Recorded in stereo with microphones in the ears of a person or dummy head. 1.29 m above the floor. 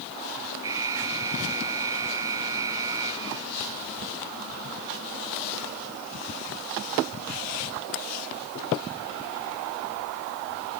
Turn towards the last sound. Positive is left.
turn(degrees=-20)  # may be behind; listen again after turning